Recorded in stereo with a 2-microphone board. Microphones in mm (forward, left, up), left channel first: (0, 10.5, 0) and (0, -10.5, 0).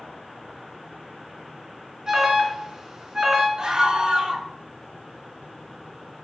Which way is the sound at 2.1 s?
35° right (ahead or behind).